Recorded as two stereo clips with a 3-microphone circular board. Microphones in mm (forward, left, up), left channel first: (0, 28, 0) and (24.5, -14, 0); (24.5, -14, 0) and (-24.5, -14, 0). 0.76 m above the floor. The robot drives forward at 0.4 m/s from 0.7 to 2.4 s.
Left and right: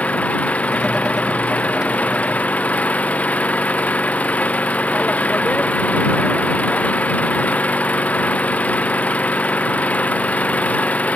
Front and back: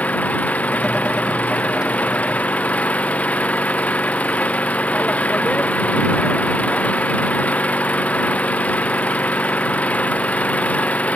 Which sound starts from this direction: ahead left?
An engine running, at 0.0 s.